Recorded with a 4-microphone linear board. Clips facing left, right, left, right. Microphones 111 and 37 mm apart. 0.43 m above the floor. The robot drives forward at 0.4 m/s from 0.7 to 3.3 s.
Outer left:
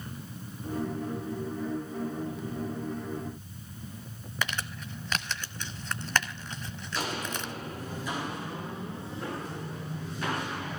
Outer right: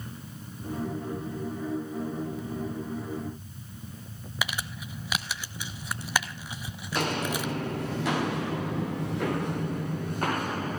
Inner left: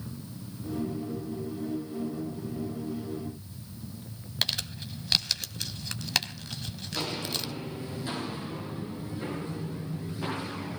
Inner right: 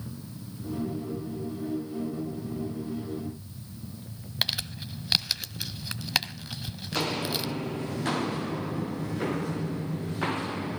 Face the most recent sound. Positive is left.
turn(degrees=-45)  # may be behind; listen again after turning